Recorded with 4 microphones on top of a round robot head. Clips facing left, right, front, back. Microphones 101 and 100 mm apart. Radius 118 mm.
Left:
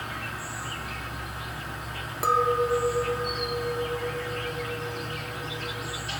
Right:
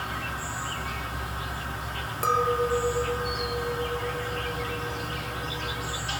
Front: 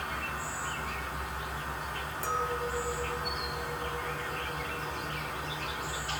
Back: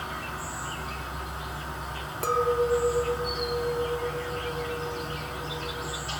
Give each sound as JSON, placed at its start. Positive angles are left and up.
{"t": 0.0, "sound": "an insect", "azimuth_deg": -130, "distance_m": 1.7}
{"t": 2.2, "sound": "a clink", "azimuth_deg": 170, "distance_m": 0.7}